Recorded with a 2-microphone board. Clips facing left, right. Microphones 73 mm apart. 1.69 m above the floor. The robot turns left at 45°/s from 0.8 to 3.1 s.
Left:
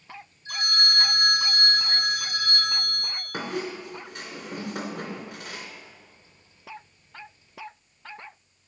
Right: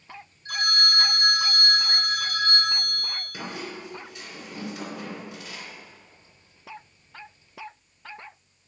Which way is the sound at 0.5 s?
65° right.